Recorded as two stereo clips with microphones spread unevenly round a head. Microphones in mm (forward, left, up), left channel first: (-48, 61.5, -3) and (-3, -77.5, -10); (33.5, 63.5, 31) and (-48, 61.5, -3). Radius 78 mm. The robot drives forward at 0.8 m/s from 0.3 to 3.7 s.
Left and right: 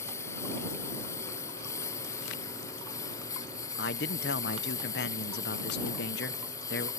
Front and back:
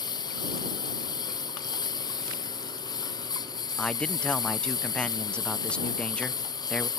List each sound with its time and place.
0.0 s a lawn mower: 35° left
3.8 s a man speaking: 80° left